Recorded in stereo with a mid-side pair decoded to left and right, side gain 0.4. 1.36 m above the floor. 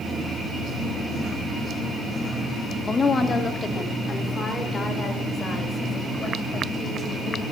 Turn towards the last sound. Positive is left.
turn(degrees=50)